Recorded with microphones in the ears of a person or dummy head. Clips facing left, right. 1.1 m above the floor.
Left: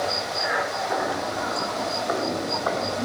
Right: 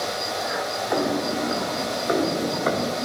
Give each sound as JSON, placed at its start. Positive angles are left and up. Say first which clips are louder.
{"t": 0.9, "sound": "footsteps", "louder": "right 6 dB", "side_deg": -45, "distance_m": 1.5}